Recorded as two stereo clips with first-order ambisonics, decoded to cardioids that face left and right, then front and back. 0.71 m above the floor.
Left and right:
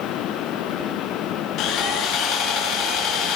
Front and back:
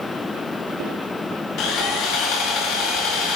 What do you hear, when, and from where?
1.6 s sawing: 45° left, 6.5 m